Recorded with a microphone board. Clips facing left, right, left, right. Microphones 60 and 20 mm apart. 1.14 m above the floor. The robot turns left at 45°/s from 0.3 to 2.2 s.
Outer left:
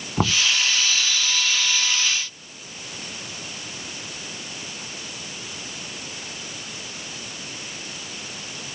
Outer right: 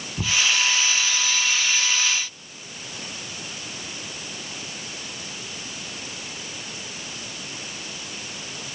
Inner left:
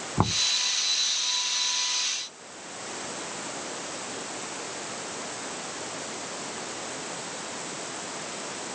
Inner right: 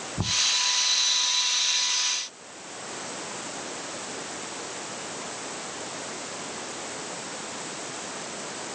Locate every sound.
0.2 s knocking: 85° left; by 0.5 s 90° left